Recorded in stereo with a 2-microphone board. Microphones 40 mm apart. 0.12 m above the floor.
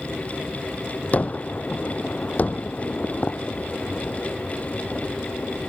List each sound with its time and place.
1.1 s a gunshot: 40° left (ahead or behind)